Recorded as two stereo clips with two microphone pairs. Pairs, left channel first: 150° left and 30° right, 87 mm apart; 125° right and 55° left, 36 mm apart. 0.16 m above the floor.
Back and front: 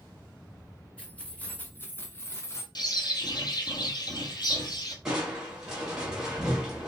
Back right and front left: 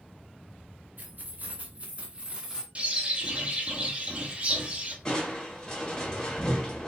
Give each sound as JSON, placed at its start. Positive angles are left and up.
{"t": 1.0, "sound": "keys jangling", "azimuth_deg": 75, "distance_m": 1.6}
{"t": 2.8, "sound": "a bird", "azimuth_deg": 110, "distance_m": 1.2}
{"t": 5.0, "sound": "crushing", "azimuth_deg": -100, "distance_m": 1.7}